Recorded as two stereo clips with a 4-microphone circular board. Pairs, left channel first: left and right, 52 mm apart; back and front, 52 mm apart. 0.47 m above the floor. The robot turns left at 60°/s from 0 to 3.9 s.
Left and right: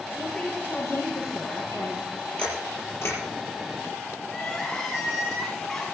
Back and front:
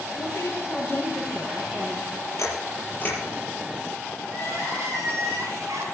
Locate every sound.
0.2 s a woman speaking: 165° left, 5 m; by 2.1 s 50° left, 5 m
2.4 s a camera shutter: 160° left, 7 m; by 3.2 s 110° left, 7 m
4.3 s crying: 10° left, 5 m